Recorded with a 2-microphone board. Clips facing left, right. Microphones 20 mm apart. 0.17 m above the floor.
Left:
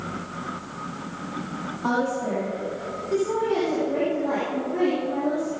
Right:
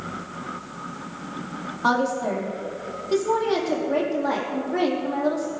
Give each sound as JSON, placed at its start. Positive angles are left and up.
{"t": 1.8, "sound": "a woman speaking", "side_deg": -60, "distance_m": 4.5}